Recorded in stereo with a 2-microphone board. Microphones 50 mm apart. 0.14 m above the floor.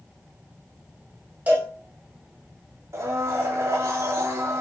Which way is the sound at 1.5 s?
30° right (ahead or behind).